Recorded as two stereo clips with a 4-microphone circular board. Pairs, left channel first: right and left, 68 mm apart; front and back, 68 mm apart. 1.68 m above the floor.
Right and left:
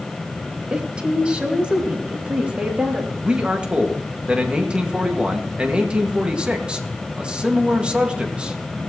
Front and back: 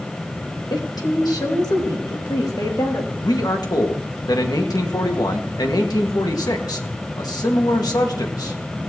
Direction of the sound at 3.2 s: 15° left.